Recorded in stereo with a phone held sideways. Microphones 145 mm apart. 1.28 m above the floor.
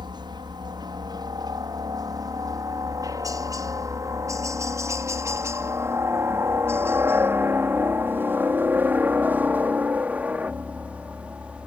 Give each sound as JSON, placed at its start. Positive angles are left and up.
{"t": 0.0, "sound": "a helicopter", "side_deg": -30}